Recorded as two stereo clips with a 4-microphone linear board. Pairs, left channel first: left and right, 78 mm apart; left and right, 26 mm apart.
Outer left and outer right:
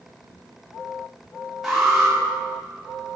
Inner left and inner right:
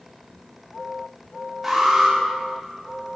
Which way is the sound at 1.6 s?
Centre (ahead or behind).